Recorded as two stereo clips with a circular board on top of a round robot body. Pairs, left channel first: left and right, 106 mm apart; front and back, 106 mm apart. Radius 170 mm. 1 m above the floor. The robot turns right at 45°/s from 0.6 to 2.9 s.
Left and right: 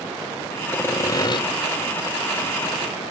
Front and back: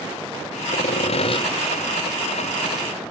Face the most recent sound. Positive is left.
turn(degrees=110)